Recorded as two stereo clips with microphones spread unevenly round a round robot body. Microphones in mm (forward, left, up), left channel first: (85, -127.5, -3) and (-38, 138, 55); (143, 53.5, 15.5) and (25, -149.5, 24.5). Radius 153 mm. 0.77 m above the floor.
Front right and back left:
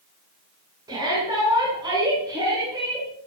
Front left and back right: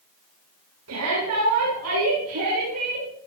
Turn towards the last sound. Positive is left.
turn(degrees=-165)